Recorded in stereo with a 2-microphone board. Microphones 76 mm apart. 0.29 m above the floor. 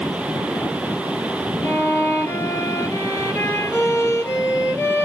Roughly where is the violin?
Left.